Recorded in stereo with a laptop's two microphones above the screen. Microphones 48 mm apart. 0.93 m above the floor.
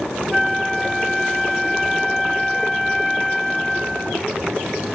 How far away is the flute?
About 0.5 m.